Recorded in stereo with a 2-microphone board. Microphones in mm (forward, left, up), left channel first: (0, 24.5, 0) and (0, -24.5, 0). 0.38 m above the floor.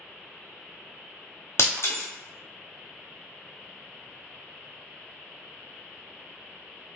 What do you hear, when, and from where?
1.6 s breaking glass: 65° left (ahead or behind), 0.8 m